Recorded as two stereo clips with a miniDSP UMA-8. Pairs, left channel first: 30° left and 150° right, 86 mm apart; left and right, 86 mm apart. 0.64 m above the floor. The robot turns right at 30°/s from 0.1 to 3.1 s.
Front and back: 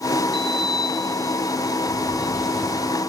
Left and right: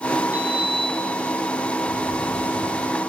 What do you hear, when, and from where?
0.3 s a sliding door: 50° left, 6 m; by 3.0 s 130° left, 6 m